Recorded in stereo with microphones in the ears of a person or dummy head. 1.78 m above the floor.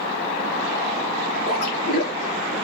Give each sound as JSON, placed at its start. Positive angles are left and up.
{"t": 1.5, "sound": "a splash", "side_deg": 50, "distance_m": 2.5}